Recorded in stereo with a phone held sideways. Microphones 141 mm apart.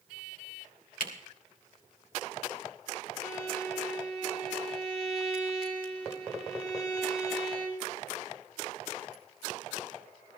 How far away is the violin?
About 5 m.